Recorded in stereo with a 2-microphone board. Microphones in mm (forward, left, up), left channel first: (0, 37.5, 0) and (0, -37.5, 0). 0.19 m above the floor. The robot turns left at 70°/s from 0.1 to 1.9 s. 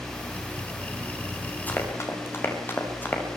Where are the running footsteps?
20° left (ahead or behind), 9.5 m; by 3.2 s 25° left (ahead or behind), 8 m.